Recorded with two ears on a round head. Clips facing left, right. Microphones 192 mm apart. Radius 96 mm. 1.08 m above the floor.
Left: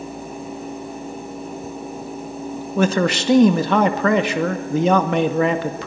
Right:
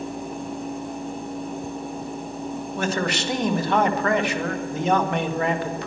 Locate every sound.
2.8 s a man speaking: 65° left (ahead or behind), 2 m